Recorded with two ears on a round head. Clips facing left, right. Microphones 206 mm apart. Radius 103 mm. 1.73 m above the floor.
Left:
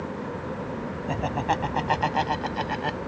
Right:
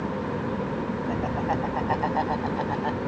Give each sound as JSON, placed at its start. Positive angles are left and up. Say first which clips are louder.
{"t": 1.1, "sound": "laughter", "louder": "left 2 dB", "side_deg": 55}